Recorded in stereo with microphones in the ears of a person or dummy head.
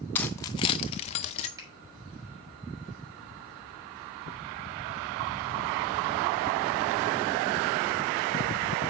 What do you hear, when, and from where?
0.1 s keys jangling: 10° left (ahead or behind), 0.6 m; by 1.5 s 35° left (ahead or behind), 0.8 m
1.6 s a finger snap: 20° right (ahead or behind), 3.5 m